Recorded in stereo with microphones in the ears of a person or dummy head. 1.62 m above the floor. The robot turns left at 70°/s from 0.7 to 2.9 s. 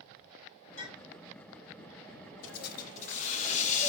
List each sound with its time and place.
0.8 s a clink: 30° left (ahead or behind), 2.5 m; by 1.2 s 55° left (ahead or behind), 2.5 m
2.4 s a hiss: 80° left, 0.6 m; by 3.9 s 45° left, 0.6 m